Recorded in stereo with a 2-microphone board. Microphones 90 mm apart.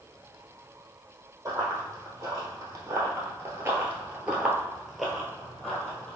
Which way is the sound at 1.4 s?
35° right (ahead or behind).